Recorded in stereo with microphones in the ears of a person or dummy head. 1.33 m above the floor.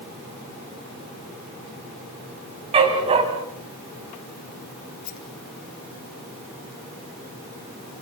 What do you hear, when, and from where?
2.7 s a dog barking: 30° right (ahead or behind), 4 m
5.0 s a rattle: 85° left, 3.5 m